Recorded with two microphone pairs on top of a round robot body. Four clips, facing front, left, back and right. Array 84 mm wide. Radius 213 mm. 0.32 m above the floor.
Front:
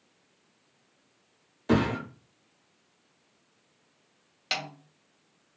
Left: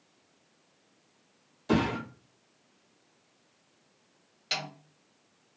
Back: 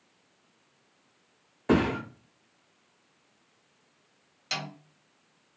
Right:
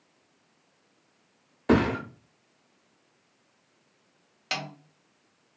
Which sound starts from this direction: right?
A thud, at 1.7 s.